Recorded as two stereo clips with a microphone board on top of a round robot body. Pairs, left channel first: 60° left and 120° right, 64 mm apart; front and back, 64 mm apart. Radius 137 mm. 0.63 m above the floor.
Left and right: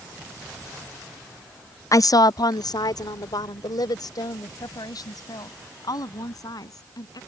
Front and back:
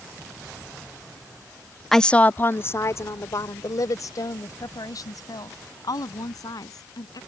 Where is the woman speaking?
85° left; by 7.2 s 30° left.